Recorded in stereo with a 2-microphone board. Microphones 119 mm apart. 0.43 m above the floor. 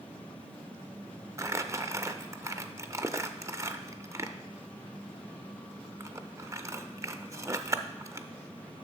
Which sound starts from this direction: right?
Crumpling, at 1.4 s.